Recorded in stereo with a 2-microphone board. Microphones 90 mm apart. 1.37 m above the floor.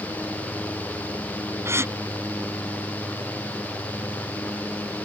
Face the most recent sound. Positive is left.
turn(degrees=-30)  # may be behind; listen again after turning